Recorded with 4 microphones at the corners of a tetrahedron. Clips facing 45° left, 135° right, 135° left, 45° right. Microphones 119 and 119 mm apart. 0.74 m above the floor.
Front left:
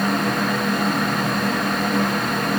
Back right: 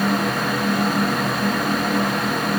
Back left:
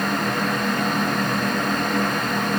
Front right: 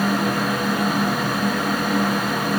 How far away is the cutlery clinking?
I don't hear cutlery clinking.